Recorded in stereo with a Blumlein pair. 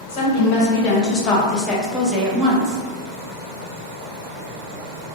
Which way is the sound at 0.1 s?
50° left.